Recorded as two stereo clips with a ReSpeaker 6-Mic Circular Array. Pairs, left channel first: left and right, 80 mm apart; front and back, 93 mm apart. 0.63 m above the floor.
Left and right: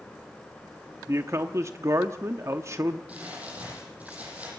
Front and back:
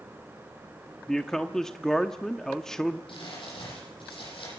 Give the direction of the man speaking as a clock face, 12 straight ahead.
3 o'clock.